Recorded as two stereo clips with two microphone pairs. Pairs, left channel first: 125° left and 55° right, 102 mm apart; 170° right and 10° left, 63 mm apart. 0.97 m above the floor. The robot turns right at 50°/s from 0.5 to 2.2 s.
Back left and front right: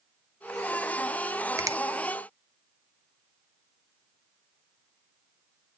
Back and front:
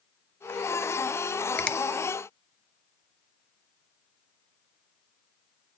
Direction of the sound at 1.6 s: 105° right.